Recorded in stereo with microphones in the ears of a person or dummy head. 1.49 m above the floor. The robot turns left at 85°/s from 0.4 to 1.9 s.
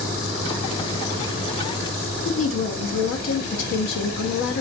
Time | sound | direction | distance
2.2 | a woman speaking | 65° left (ahead or behind) | 0.6 m